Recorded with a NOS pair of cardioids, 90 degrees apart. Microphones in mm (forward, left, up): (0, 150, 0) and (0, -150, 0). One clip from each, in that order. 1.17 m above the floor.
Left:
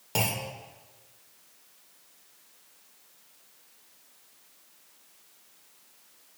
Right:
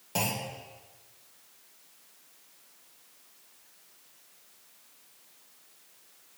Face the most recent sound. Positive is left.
turn(degrees=30)